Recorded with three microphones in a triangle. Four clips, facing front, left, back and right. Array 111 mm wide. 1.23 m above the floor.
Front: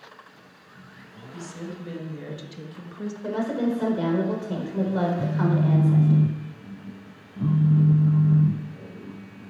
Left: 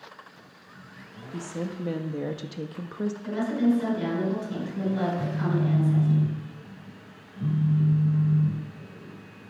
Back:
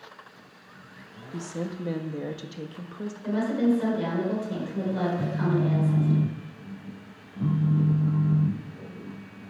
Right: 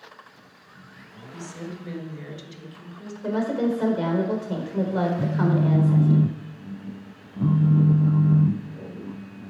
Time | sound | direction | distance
1.3 | a woman speaking | 145° left | 1.6 m
3.2 | a woman speaking | 65° right | 4.5 m
5.2 | a phone buzzing | 95° right | 0.7 m